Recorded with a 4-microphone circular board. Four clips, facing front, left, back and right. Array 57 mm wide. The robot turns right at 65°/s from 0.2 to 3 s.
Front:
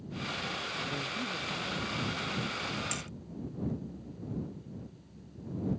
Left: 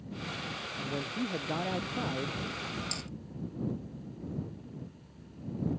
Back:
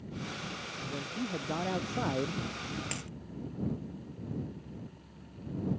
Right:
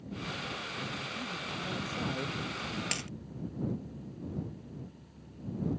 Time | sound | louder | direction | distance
0.8 | a man speaking | left 3 dB, front 2 dB | 80° left | ?
2.9 | a dropped coin | right 4 dB, front 1 dB | 100° right | ?